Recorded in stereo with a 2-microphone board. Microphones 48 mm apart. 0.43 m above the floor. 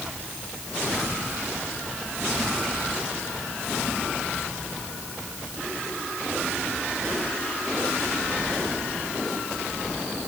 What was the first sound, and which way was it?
Only background noise.